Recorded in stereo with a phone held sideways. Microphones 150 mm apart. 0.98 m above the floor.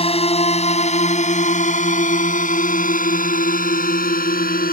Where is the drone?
40° left (ahead or behind); by 4.7 s 70° left (ahead or behind).